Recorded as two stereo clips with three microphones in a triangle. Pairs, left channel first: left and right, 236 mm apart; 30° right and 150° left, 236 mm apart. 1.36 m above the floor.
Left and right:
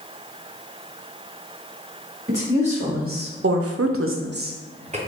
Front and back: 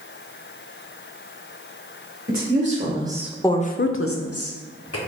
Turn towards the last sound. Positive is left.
turn(degrees=-25)